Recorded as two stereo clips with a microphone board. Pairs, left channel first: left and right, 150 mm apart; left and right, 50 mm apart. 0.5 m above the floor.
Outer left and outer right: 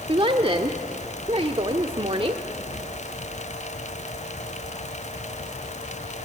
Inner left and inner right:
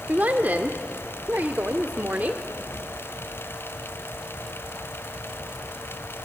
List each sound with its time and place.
0.1 s a woman speaking: 40° right (ahead or behind), 1.0 m